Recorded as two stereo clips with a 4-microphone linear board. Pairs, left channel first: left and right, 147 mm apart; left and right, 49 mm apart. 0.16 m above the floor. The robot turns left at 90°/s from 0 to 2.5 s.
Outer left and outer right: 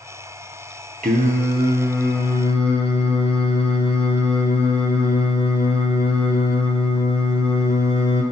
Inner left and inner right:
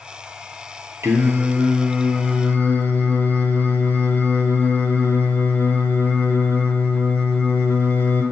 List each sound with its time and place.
1.0 s singing: 90° right, 0.5 m; by 8.2 s 135° left, 0.5 m